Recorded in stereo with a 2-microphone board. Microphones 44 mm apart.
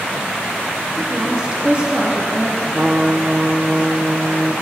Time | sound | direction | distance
1.0 | a woman speaking | 15° right (ahead or behind) | 3 m
2.7 | a trumpet | 25° right (ahead or behind) | 0.8 m